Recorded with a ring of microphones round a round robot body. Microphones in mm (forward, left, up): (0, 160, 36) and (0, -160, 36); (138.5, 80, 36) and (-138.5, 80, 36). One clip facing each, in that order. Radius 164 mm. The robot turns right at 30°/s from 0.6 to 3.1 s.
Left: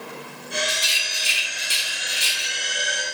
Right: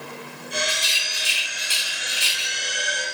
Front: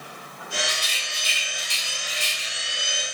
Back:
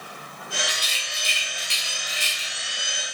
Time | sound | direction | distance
0.7 | a rattle | 130° left | 1.5 m